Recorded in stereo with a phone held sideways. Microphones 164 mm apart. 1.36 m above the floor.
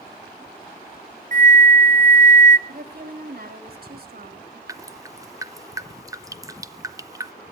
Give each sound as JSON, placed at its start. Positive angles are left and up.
{"t": 1.3, "sound": "a flute", "side_deg": -50, "distance_m": 0.8}
{"t": 2.7, "sound": "a woman speaking", "side_deg": -60, "distance_m": 2.5}
{"t": 4.7, "sound": "dripping", "side_deg": -20, "distance_m": 0.6}